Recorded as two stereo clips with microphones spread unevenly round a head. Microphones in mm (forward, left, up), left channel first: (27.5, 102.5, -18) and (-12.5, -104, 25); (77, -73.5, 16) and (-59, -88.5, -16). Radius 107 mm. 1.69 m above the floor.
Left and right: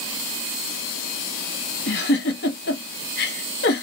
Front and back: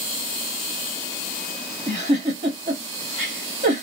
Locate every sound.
1.9 s a giggle: 125° left, 1.0 m